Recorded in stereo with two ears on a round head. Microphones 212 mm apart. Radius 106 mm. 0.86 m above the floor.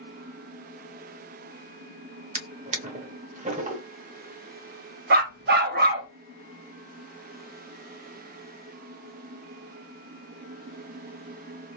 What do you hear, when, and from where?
2.4 s a drawer: 30° right (ahead or behind), 0.7 m
5.1 s a dog barking: 40° right (ahead or behind), 0.5 m